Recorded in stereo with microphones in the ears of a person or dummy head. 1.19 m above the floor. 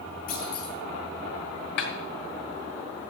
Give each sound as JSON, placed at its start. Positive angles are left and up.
{"t": 0.3, "sound": "a clunk", "side_deg": 50, "distance_m": 1.5}
{"t": 1.8, "sound": "a snare drum", "side_deg": 55, "distance_m": 1.6}